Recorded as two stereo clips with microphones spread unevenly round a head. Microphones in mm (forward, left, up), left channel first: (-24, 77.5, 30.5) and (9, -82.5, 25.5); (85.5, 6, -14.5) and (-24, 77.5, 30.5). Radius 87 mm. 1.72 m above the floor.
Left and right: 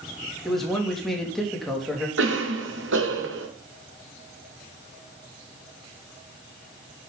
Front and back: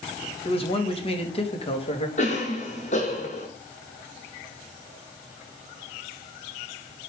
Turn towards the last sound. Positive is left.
turn(degrees=-85)